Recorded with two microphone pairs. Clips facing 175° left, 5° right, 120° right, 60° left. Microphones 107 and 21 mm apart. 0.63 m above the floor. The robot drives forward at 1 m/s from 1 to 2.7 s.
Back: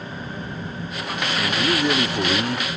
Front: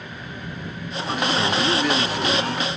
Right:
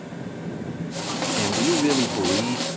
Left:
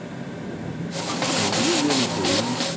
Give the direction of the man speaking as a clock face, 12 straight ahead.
3 o'clock.